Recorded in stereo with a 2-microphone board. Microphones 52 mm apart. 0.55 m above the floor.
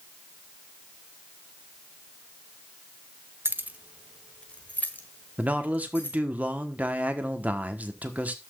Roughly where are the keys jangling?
Right.